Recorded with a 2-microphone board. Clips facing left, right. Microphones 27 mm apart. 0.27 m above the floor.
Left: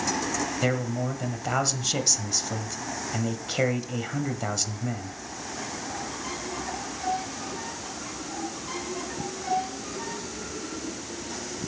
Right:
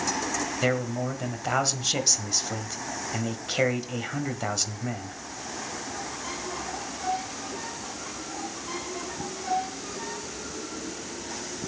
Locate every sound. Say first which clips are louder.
0.6 s a man speaking: right 2 dB; 10° right (ahead or behind), 1.2 m